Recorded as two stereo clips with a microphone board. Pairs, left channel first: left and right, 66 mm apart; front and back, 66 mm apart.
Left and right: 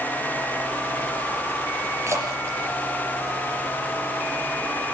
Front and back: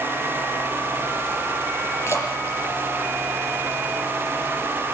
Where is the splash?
45° right, 7.5 m.